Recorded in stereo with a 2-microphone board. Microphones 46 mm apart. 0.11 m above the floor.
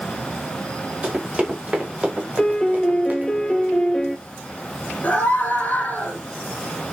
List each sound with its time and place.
1.0 s running footsteps: 20° right (ahead or behind), 6.5 m; by 3.3 s 40° right (ahead or behind), 5.5 m
2.4 s a piano: 25° left (ahead or behind), 0.9 m
5.0 s a scream: 40° left (ahead or behind), 2 m